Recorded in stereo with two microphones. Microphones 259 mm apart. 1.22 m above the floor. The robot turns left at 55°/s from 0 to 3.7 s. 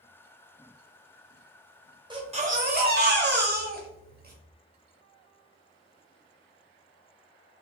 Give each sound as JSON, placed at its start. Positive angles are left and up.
{"t": 2.1, "sound": "a baby crying", "azimuth_deg": -25, "distance_m": 0.8}